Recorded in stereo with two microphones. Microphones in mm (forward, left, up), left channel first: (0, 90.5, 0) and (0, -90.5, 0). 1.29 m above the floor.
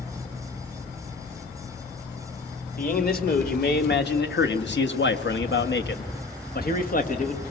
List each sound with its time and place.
2.8 s a man speaking: 55° left (ahead or behind), 2.5 m; by 7.4 s 40° left (ahead or behind), 1.7 m